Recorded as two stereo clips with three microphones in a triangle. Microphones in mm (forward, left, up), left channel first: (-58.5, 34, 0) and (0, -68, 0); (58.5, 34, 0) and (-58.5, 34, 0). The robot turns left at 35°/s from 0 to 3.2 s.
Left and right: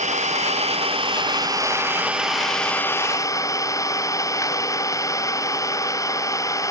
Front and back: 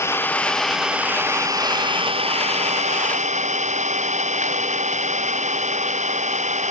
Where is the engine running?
65° right; by 6.7 s straight behind.